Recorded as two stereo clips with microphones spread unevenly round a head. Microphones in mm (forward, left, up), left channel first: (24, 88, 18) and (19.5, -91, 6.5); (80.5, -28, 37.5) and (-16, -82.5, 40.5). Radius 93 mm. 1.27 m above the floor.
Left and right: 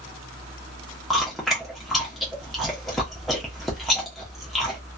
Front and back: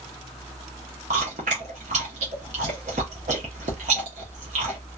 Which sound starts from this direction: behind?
Chewing, at 1.1 s.